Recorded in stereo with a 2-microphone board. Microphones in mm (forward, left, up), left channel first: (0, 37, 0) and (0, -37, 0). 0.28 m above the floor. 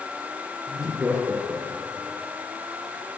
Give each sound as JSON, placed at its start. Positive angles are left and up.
{"t": 0.7, "sound": "laughter", "side_deg": -25, "distance_m": 5.0}